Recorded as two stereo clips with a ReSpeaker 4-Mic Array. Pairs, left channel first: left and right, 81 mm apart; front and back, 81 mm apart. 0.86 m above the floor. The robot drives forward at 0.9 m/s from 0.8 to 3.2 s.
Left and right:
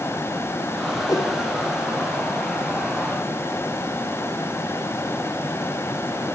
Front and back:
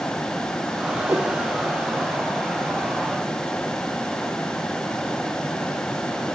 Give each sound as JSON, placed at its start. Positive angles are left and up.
{"t": 1.1, "sound": "a whoosh", "azimuth_deg": 130, "distance_m": 2.5}